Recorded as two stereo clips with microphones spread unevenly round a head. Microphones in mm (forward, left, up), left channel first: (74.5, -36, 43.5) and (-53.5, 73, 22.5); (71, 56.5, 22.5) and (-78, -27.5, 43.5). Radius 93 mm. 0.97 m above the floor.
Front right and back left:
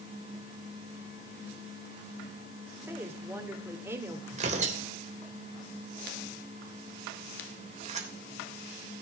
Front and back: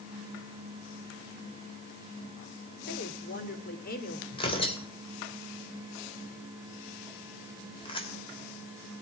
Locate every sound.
2.9 s a woman speaking: 65° left, 3 m
4.3 s tearing paper: 90° left, 3 m